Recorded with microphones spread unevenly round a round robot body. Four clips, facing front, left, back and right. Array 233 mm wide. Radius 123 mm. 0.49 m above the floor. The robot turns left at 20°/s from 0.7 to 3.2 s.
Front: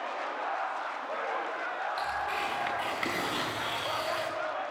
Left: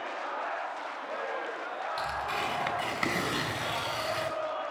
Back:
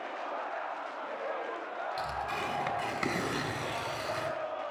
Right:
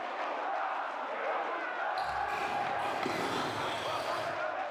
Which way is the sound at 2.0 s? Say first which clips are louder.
Left 3 dB, front 2 dB; 165° left.